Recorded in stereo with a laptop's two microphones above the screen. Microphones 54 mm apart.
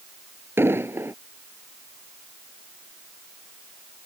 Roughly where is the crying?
I don't hear crying.